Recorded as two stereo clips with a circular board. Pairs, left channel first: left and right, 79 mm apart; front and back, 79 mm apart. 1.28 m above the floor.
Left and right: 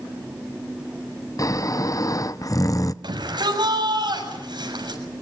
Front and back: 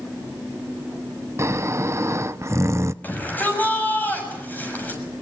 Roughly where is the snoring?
Behind left.